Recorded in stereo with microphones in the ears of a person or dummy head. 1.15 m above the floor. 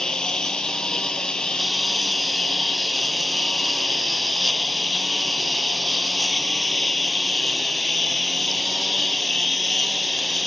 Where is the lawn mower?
5° left (ahead or behind).